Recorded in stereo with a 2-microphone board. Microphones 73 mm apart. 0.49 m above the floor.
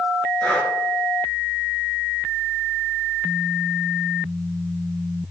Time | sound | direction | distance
0.4 | breathing | 15° left (ahead or behind) | 2 m